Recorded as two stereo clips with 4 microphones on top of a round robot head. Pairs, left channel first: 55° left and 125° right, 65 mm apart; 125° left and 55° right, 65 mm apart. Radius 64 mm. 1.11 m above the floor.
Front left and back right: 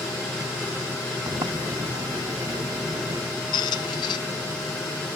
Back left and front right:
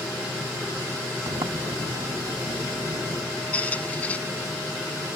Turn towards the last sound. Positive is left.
turn(degrees=55)